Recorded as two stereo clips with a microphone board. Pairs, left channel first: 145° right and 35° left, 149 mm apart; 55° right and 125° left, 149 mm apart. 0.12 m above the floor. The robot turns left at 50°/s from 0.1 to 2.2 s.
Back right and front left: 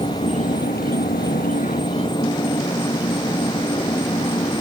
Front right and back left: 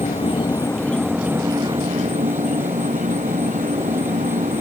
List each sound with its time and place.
0.0 s an insect: 95° right; by 4.6 s 160° left